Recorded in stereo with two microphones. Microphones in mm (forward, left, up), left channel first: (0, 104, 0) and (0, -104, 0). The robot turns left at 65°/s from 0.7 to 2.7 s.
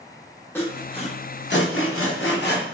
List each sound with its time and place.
0.6 s sawing: 10° left (ahead or behind), 0.7 m; by 2.6 s 45° left (ahead or behind), 0.7 m